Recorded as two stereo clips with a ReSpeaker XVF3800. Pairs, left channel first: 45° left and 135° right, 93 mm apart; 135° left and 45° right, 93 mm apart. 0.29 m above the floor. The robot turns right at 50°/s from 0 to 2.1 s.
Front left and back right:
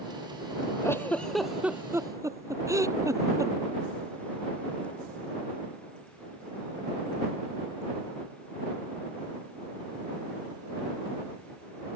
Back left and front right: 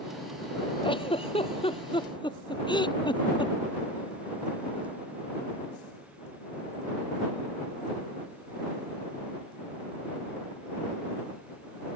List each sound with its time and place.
0.8 s a giggle: 105° left; by 3.5 s 170° left